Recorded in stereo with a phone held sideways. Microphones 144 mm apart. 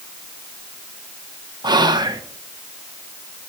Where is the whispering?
30° right (ahead or behind), 0.6 m.